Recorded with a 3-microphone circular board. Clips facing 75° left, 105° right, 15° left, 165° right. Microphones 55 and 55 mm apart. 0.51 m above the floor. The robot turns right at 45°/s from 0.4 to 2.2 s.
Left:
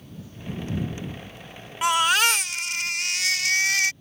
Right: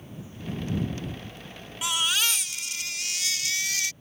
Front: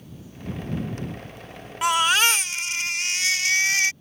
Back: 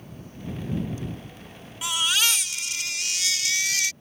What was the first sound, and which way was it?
A baby crying, 40° left.